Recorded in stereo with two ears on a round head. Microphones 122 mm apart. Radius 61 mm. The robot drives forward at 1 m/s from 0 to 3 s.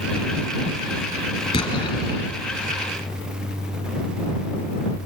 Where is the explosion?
35° left (ahead or behind), 3.5 m; by 2.3 s 25° left (ahead or behind), 4 m.